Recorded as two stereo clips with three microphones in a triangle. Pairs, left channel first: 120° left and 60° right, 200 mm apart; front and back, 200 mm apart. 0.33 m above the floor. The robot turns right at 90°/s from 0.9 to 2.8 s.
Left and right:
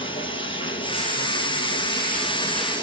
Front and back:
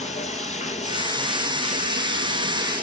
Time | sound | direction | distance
0.0 | running water | 55° left | 2 m